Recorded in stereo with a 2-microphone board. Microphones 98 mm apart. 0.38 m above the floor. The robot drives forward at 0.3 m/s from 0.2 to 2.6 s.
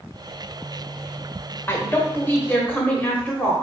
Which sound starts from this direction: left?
A woman speaking, at 1.7 s.